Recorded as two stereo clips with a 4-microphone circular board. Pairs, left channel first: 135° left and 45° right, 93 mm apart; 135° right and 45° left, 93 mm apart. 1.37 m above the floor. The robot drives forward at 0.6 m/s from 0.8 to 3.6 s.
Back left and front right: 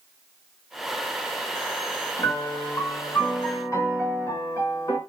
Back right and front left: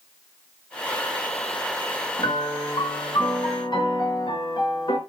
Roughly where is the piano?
Behind.